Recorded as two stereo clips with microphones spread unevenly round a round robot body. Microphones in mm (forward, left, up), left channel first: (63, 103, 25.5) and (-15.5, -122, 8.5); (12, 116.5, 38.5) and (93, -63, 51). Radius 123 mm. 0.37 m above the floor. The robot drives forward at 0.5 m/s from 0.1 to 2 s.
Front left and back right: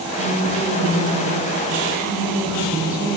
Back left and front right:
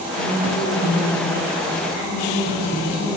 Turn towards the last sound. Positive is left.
turn(degrees=170)